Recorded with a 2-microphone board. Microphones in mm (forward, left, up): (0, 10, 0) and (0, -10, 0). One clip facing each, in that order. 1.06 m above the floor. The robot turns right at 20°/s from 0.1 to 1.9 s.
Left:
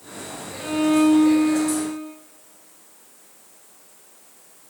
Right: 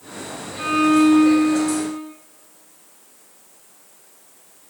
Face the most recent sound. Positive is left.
turn(degrees=-40)  # may be behind; listen again after turning